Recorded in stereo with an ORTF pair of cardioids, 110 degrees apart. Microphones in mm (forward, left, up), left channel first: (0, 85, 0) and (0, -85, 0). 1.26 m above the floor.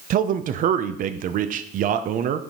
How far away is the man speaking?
About 0.7 m.